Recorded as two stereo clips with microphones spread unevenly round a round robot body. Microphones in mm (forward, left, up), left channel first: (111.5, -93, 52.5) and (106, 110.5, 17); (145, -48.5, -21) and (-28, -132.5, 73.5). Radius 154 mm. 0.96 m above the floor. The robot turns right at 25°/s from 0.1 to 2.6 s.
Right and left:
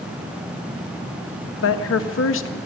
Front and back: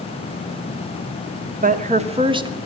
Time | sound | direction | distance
1.6 | a woman speaking | 95° right | 1.6 m